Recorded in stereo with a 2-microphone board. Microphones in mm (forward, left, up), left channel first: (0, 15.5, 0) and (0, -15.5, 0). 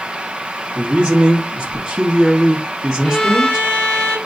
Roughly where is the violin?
Centre.